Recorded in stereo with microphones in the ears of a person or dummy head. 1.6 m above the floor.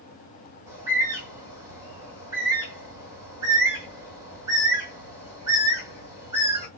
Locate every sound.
0.7 s a bird: 20° right (ahead or behind), 1.8 m